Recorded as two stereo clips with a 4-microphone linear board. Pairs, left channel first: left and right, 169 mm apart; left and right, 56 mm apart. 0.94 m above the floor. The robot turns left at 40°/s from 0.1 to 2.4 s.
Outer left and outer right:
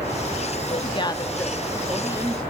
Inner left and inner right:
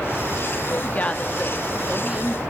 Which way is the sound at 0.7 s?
40° left.